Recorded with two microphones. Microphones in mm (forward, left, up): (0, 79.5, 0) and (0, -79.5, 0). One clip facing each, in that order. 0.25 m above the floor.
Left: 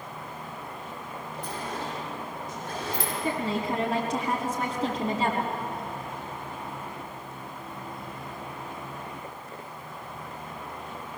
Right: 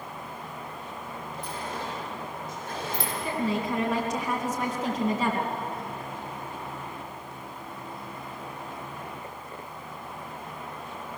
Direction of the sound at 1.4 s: 50° left (ahead or behind).